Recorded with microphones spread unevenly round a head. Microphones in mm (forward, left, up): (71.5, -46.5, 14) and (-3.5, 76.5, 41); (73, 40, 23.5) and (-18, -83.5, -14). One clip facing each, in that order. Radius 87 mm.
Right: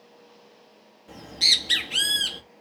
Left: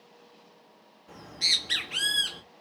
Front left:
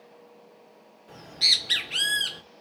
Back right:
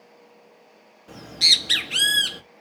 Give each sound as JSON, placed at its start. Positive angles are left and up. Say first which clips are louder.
{"t": 1.1, "sound": "a bird", "louder": "right 4 dB, back right 5 dB", "azimuth_deg": -115, "distance_m": 1.4}